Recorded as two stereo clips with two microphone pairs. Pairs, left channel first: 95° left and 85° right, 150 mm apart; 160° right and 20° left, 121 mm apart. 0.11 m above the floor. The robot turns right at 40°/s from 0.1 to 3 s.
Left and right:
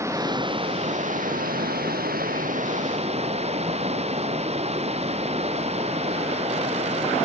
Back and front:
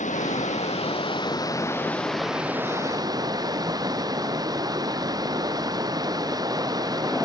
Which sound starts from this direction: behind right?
Running water, at 0.0 s.